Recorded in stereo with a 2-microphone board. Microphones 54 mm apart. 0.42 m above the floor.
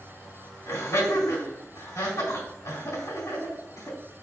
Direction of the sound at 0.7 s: 70° left (ahead or behind).